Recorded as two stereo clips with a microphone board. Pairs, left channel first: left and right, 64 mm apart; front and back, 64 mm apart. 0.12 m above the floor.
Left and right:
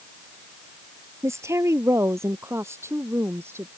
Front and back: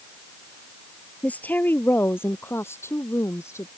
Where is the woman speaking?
65° right; by 3.7 s 40° right.